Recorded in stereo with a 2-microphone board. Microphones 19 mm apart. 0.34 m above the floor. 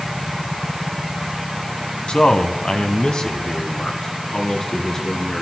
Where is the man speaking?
60° left (ahead or behind), 2.5 m; by 5.4 s 35° left (ahead or behind), 3.5 m.